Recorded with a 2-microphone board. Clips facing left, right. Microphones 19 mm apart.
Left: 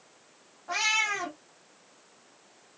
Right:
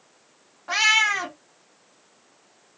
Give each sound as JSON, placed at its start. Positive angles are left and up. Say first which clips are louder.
{"t": 0.7, "sound": "a cat meowing", "louder": "right 8 dB", "side_deg": -70, "distance_m": 0.7}